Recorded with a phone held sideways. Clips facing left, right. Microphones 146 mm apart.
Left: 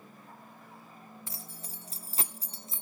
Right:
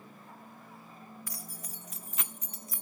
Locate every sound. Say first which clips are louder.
1.3 s keys jangling: right 1 dB; 25° left (ahead or behind), 1.0 m